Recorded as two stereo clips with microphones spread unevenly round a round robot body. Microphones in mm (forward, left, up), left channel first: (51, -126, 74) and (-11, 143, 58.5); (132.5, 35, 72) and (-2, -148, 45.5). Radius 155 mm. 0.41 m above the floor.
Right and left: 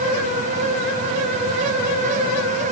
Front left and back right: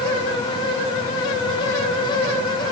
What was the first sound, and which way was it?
Only background noise.